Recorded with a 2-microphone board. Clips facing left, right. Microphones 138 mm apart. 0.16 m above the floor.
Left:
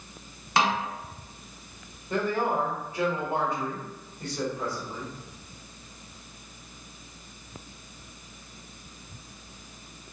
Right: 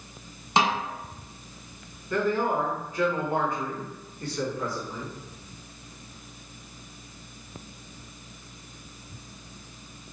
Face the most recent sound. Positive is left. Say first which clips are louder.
# right 1 dB
turn(degrees=25)  # may be behind; listen again after turning